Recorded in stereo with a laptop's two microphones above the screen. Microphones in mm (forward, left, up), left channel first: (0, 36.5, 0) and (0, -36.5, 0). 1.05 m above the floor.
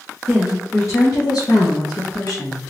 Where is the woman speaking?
15° left (ahead or behind), 0.6 m; by 2.6 s 70° left (ahead or behind), 1.2 m.